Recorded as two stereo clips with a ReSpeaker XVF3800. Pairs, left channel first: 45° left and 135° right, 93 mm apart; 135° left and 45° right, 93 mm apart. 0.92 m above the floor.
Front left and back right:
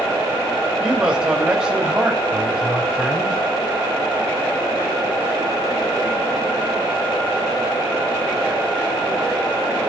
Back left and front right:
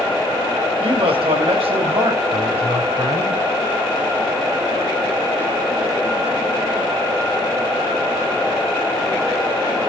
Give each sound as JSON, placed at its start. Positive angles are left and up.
{"t": 0.8, "sound": "a man speaking", "azimuth_deg": -55, "distance_m": 3.0}